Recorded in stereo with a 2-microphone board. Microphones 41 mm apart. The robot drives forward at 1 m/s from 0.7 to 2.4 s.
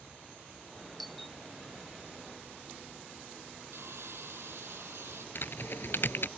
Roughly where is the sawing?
Right.